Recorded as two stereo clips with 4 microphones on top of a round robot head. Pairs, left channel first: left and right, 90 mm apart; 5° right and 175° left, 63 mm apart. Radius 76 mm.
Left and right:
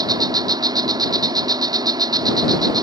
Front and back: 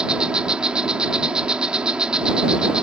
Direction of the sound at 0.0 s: 110° right.